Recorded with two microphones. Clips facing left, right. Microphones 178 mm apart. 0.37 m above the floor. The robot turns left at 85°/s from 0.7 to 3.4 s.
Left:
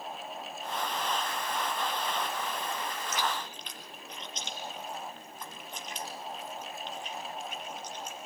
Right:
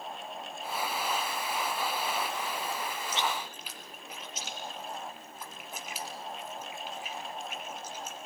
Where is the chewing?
30° right (ahead or behind), 2.5 m; by 8.3 s 5° right (ahead or behind), 2.5 m.